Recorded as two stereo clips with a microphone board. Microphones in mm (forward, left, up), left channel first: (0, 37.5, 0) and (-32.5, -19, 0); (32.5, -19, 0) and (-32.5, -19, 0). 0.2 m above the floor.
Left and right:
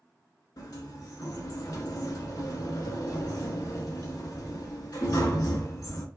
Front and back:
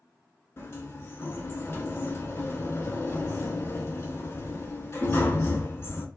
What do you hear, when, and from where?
0.6 s a sliding door: 45° left, 0.5 m